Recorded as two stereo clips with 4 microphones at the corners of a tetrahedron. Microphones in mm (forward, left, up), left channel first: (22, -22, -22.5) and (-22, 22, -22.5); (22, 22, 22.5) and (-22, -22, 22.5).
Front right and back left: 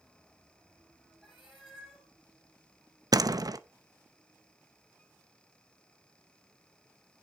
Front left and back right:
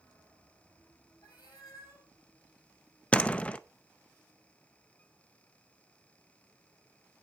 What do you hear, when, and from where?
1.2 s a cat meowing: 50° left, 7 m
3.1 s a door slam: 115° left, 0.6 m